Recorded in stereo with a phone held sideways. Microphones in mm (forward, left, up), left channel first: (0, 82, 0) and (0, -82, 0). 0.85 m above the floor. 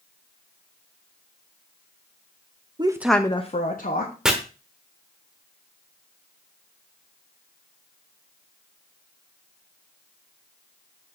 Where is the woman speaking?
30° right (ahead or behind), 0.8 m; by 4.1 s 65° left (ahead or behind), 1.4 m.